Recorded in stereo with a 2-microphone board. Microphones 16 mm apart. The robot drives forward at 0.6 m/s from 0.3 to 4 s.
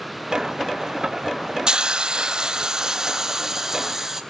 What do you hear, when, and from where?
1.7 s a hiss: 60° right (ahead or behind), 0.6 m; by 4.2 s 20° right (ahead or behind), 1.4 m